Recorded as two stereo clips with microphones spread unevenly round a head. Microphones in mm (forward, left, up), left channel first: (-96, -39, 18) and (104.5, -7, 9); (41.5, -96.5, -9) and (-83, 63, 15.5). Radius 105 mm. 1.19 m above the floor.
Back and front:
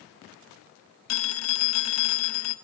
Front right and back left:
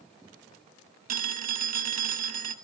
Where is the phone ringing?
175° left, 1.1 m.